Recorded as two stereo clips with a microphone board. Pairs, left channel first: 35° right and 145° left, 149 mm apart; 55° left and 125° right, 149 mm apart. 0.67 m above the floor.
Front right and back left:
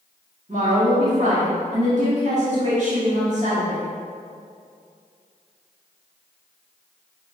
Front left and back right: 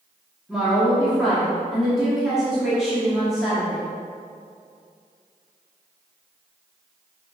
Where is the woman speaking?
150° left, 0.9 m.